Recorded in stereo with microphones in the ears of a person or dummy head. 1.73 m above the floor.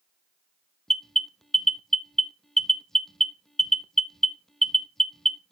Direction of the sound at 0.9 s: Centre (ahead or behind).